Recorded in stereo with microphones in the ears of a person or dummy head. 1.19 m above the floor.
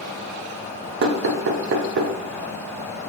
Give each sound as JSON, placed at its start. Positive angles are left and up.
{"t": 1.0, "sound": "knocking", "side_deg": -65, "distance_m": 0.6}